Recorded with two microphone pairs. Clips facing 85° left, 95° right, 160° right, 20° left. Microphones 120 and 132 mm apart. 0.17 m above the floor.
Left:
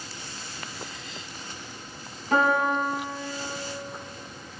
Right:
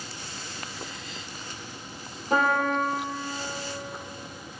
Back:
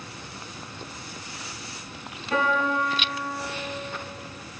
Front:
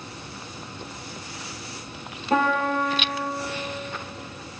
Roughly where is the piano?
Ahead right.